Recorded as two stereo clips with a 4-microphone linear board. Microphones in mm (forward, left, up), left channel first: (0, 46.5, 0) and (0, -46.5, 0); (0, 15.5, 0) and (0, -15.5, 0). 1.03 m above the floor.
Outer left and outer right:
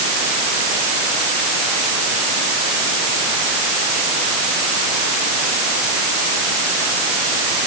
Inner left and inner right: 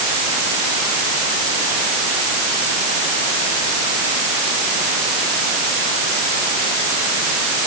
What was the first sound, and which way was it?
Only background noise.